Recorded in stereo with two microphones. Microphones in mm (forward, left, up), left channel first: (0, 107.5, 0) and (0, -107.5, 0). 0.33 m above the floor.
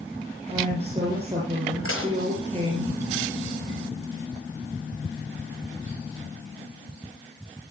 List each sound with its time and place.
0.5 s a woman speaking: 30° right (ahead or behind), 7 m
1.9 s dishes clattering: 80° left, 5 m